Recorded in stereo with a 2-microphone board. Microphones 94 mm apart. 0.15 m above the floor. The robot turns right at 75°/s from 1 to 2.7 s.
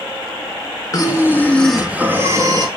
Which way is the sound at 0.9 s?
125° left.